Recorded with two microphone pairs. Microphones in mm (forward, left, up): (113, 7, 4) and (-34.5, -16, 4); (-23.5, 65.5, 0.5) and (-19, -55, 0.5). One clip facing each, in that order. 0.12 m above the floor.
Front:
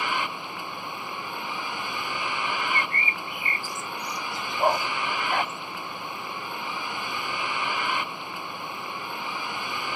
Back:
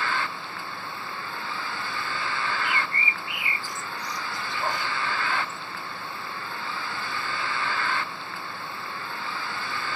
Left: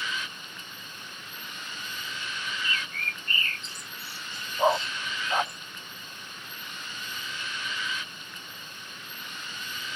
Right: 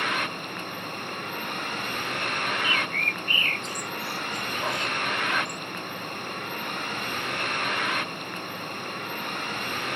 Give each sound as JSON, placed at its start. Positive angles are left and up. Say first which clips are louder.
{"t": 0.0, "sound": "a vehicle", "louder": "even, right 8 dB", "azimuth_deg": -65}
{"t": 2.6, "sound": "a bird", "louder": "even, right 7 dB", "azimuth_deg": 40}
{"t": 4.6, "sound": "a dog barking", "louder": "front 6 dB, left 7 dB", "azimuth_deg": 50}